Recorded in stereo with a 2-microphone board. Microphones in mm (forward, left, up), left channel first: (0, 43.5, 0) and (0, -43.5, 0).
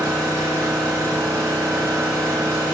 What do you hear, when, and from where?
0.0 s an engine running: 35° right (ahead or behind), 4 m